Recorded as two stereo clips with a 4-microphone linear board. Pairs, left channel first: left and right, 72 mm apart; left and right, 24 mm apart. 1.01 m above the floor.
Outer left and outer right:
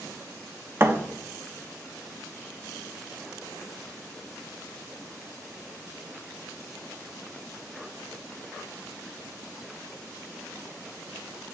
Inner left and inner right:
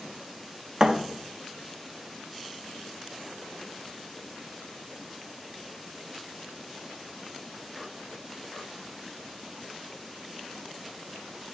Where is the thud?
35° right (ahead or behind), 0.6 m.